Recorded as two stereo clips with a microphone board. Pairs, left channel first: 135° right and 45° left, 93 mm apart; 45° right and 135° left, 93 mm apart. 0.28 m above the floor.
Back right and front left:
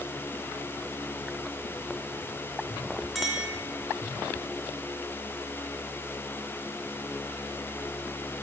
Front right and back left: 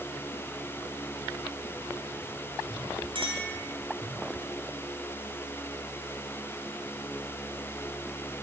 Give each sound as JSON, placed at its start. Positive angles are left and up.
{"t": 3.1, "sound": "a clink", "azimuth_deg": 135, "distance_m": 3.0}